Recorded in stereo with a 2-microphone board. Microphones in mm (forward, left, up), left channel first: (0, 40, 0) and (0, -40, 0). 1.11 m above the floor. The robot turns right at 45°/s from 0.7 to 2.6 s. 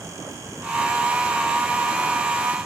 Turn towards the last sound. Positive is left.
No sound to turn to.